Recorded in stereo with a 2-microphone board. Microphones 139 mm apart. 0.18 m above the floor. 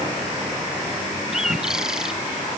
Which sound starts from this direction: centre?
A bird, at 1.3 s.